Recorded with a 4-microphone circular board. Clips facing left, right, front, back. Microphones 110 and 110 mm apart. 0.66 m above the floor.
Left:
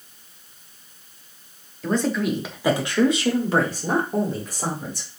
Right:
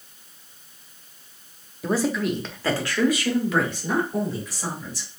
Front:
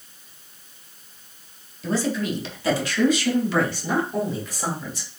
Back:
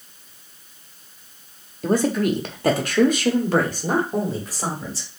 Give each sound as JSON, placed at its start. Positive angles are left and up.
{"t": 1.8, "sound": "a man speaking", "azimuth_deg": -165, "distance_m": 0.9}